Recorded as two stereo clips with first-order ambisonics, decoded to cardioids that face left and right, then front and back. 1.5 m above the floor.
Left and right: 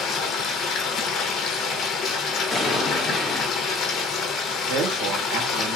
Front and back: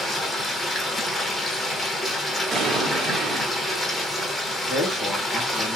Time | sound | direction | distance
0.0 | running water | 70° left | 0.8 m
2.5 | an explosion | 170° left | 1.0 m
4.7 | a woman speaking | 80° right | 1.2 m